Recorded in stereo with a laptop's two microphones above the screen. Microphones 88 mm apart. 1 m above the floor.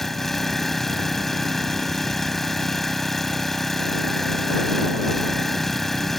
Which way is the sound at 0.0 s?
5° left (ahead or behind).